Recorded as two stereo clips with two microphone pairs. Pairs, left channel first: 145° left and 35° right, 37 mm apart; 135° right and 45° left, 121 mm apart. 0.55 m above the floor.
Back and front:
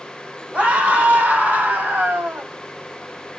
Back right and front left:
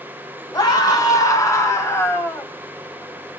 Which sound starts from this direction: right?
A scream, at 0.5 s.